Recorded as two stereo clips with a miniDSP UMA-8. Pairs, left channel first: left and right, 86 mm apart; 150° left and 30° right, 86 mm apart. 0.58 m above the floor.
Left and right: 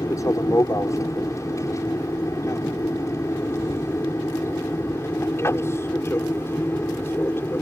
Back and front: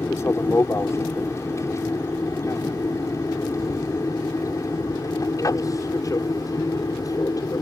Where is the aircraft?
110° left; by 7.6 s 140° left.